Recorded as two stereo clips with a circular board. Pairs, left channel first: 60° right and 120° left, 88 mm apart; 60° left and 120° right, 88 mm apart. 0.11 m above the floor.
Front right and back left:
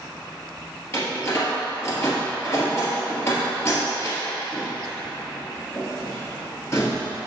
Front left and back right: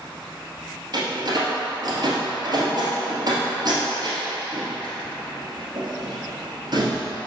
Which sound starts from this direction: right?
A door slam, at 0.9 s.